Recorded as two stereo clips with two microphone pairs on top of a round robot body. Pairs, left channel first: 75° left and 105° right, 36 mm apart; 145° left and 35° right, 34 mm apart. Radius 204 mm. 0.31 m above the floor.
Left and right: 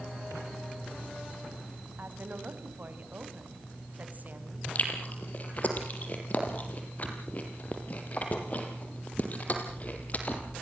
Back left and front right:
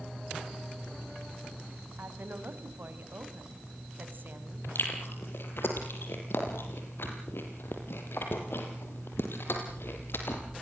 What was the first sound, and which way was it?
A woman speaking, 60° right.